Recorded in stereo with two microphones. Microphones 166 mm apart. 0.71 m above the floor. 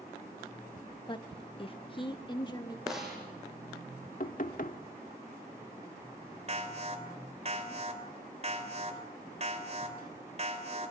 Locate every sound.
1.1 s a woman speaking: 30° left (ahead or behind), 0.9 m; by 2.8 s 25° left (ahead or behind), 1.6 m
2.9 s a snare drum: centre (ahead or behind), 9 m
4.2 s knocking: 60° left (ahead or behind), 1.0 m
6.5 s an alarm: 45° right (ahead or behind), 3 m